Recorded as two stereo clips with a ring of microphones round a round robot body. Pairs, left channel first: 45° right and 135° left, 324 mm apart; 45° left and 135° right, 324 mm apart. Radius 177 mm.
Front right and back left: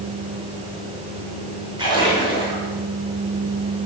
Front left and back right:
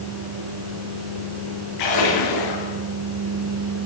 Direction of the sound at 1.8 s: 60° left.